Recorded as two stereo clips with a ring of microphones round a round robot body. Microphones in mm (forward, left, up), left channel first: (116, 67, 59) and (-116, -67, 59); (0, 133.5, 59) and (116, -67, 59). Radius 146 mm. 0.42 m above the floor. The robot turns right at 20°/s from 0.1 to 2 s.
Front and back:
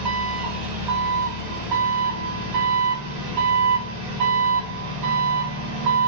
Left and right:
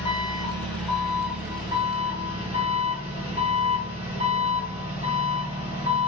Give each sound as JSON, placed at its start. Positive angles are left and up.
{"t": 0.0, "sound": "an engine running", "azimuth_deg": -170, "distance_m": 1.8}